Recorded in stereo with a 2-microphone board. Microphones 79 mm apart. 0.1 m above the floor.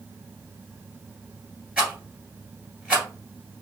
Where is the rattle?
15° right (ahead or behind), 1.8 m.